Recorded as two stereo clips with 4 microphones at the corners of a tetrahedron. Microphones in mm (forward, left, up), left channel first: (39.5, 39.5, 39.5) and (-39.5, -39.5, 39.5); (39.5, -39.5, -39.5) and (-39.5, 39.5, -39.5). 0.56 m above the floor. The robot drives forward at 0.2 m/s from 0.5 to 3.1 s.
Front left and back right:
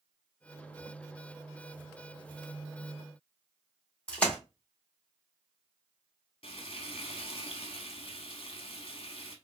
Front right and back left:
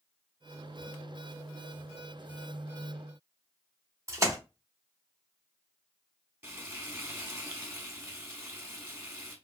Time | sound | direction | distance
4.1 | a splash | 115° left | 0.9 m
6.4 | frying | 70° left | 0.8 m